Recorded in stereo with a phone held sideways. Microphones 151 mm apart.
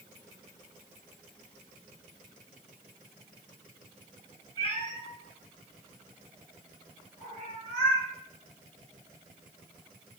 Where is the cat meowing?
35° left (ahead or behind), 1.1 m; by 8.1 s 75° left (ahead or behind), 3 m.